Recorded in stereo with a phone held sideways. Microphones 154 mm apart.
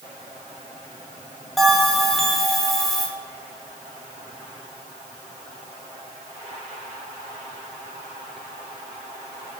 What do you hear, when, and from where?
1.6 s a bell: centre (ahead or behind), 3.5 m